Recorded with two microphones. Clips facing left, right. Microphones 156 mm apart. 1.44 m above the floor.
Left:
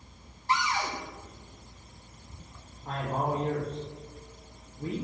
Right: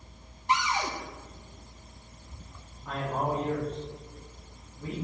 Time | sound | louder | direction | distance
0.5 | a cupboard door | right 1 dB | 20° right (ahead or behind) | 1.8 m
2.9 | a man speaking | even | 35° left (ahead or behind) | 2.5 m